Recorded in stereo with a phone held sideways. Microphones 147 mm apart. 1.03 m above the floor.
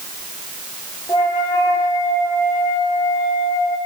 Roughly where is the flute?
Left.